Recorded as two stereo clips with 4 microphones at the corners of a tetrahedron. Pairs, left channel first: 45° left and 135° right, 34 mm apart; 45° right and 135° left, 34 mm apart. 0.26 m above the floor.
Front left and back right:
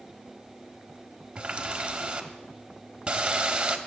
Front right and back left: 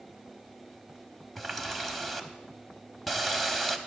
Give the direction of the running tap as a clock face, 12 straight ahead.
4 o'clock.